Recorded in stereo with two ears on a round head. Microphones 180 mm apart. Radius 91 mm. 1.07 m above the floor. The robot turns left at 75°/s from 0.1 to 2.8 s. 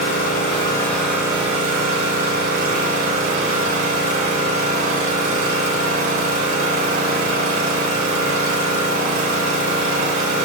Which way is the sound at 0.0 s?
70° left.